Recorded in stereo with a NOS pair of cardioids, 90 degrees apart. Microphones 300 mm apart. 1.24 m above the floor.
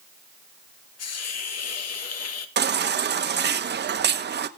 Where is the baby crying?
35° right, 1.1 m.